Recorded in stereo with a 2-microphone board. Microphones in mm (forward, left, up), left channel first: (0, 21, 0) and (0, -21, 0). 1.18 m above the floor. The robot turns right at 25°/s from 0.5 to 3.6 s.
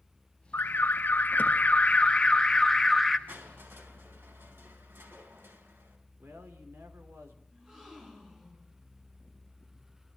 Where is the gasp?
20° right (ahead or behind), 10 m.